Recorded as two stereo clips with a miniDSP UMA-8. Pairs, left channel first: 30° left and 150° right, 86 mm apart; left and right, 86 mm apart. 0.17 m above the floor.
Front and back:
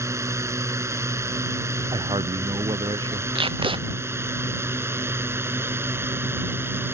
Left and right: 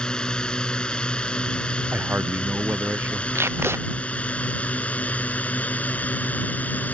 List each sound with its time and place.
0.0 s a drone: 170° left; by 7.0 s 155° left
1.9 s a man speaking: 155° right
3.4 s tape being pulled: 150° right